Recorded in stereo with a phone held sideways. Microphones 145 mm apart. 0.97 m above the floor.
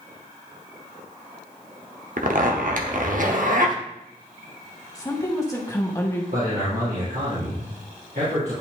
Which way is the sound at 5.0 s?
20° left (ahead or behind).